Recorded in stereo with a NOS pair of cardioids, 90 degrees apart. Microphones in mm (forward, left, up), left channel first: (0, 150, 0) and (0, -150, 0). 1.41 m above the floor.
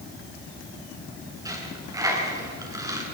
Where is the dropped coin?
10° right, 6.5 m.